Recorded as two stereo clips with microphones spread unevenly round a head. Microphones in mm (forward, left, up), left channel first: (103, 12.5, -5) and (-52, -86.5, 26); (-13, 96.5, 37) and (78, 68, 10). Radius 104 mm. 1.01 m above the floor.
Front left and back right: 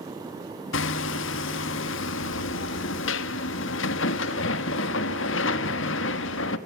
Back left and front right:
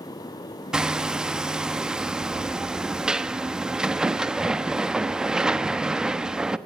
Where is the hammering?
65° left, 1.0 m.